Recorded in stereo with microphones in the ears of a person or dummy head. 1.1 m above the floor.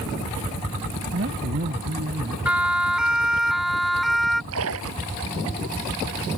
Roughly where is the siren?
Centre.